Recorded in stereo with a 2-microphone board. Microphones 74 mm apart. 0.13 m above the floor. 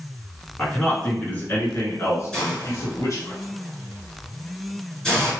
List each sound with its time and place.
0.6 s a man speaking: 10° left (ahead or behind), 1.6 m; by 3.3 s 50° left (ahead or behind), 1.9 m
2.3 s a hiss: 10° left (ahead or behind), 1.8 m